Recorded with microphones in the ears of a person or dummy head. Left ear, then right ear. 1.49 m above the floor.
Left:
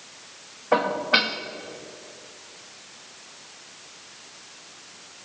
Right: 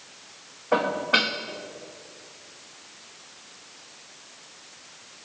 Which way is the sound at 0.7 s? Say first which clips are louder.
Left 1 dB; 10° left (ahead or behind).